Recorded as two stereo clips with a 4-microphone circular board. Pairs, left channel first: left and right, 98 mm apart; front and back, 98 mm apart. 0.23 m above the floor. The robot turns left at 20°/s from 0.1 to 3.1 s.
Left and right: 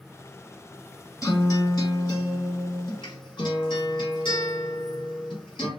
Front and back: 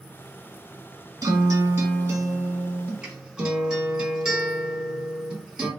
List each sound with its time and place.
1.2 s a guitar: 140° left, 1.2 m; by 5.7 s 100° left, 1.2 m